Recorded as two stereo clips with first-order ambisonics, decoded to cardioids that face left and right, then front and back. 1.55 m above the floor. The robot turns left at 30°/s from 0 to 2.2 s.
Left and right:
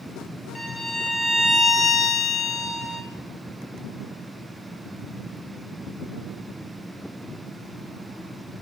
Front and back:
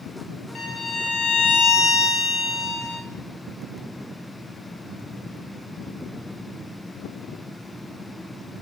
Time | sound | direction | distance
0.6 | a violin | 25° left | 0.8 m